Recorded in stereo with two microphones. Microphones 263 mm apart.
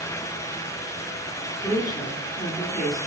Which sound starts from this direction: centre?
A woman speaking, at 1.6 s.